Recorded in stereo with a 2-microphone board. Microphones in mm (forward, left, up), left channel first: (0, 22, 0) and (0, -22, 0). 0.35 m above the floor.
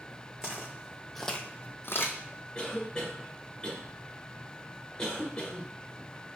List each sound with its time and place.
0.4 s footsteps: 20° right (ahead or behind), 1.4 m; by 2.2 s 55° left (ahead or behind), 0.9 m
2.5 s a cough: 15° left (ahead or behind), 0.9 m